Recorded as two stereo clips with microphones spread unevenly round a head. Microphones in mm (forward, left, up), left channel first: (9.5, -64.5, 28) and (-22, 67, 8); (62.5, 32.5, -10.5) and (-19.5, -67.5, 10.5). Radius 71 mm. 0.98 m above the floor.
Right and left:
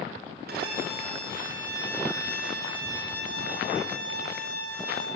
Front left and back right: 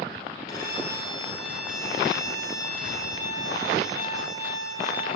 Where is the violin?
120° left, 6.5 m.